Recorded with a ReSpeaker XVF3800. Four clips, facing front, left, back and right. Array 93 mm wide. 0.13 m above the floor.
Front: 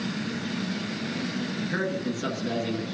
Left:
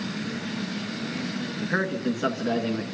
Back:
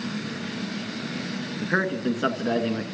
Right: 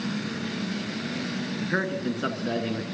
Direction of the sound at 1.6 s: 170° left.